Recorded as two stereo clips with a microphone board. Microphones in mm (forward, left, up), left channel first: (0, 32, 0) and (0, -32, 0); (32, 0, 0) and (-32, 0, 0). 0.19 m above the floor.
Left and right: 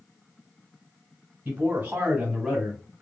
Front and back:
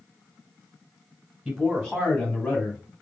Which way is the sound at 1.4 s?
95° right.